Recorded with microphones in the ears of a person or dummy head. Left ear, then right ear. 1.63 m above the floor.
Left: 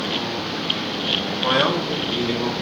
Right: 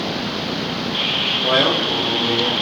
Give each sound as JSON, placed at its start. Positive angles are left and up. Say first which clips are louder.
{"t": 1.4, "sound": "a man speaking", "louder": "right 2 dB", "side_deg": 35, "distance_m": 1.3}